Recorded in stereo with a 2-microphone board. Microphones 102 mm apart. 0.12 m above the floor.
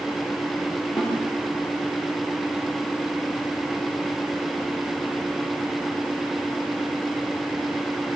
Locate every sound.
1.0 s a snare drum: 40° left (ahead or behind), 9 m